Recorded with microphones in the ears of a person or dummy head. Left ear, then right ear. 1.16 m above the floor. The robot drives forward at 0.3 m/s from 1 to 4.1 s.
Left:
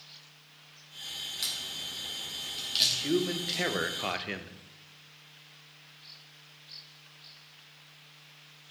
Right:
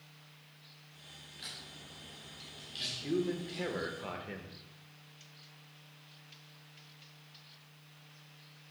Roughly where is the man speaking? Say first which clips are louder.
Left 7 dB; left.